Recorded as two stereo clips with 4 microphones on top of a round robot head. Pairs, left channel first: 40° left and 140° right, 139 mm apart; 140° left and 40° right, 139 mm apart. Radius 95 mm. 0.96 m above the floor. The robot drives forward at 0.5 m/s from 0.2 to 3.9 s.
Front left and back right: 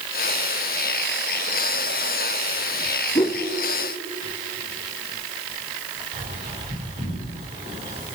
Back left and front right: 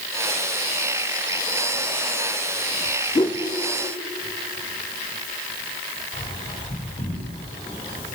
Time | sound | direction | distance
3.1 | a whoosh | 85° left | 0.7 m
6.1 | a bird | 170° right | 5.5 m